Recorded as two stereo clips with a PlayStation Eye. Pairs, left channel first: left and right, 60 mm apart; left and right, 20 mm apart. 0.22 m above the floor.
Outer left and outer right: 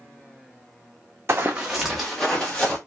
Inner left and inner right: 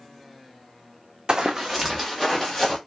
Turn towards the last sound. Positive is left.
turn(degrees=15)  # may be behind; listen again after turning